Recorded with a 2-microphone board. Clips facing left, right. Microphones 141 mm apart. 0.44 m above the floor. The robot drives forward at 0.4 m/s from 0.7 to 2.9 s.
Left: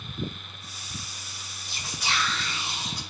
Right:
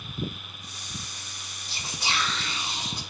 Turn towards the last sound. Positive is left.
turn(degrees=-25)  # may be behind; listen again after turning